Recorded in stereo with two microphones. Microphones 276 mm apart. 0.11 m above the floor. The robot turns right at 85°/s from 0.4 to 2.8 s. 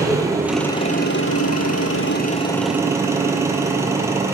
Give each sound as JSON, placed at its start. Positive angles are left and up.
{"t": 0.0, "sound": "an engine running", "azimuth_deg": -10, "distance_m": 1.0}